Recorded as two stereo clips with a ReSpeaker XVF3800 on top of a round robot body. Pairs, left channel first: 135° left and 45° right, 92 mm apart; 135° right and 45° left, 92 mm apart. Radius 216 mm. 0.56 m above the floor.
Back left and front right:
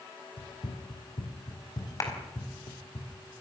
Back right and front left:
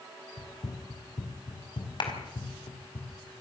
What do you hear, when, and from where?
0.4 s running footsteps: 170° left, 2.5 m; by 3.0 s 175° right, 4.5 m
2.0 s a clap: 170° right, 5 m